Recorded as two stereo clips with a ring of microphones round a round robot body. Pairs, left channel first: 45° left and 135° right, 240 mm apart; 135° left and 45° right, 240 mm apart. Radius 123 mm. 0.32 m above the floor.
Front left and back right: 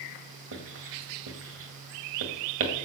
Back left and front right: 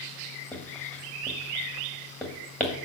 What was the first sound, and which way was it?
Writing, 140° right.